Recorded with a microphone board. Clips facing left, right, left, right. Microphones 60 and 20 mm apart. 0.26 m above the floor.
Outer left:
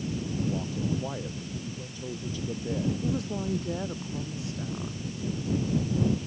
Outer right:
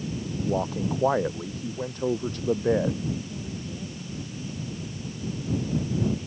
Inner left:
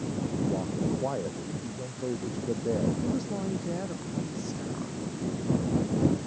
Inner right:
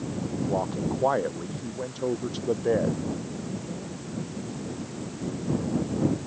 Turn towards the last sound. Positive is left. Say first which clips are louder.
# outer left 3 dB, inner left 3 dB
turn(degrees=80)